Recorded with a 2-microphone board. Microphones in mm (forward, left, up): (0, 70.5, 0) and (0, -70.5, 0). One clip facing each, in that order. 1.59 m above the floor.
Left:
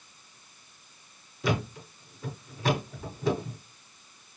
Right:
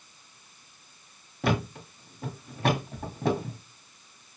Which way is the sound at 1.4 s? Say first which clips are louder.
Right 2 dB; 60° right (ahead or behind).